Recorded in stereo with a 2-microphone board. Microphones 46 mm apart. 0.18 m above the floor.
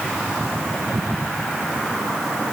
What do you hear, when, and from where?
Only background noise.